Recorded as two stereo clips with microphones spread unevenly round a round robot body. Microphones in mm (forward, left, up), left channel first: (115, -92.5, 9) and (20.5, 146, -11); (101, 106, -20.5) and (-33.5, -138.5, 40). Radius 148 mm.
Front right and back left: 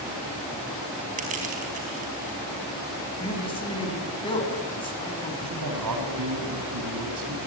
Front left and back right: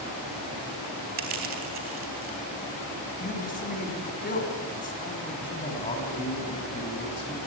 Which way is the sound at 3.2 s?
Straight ahead.